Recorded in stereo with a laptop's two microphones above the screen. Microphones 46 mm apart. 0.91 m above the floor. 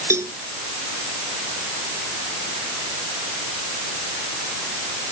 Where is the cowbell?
80° right.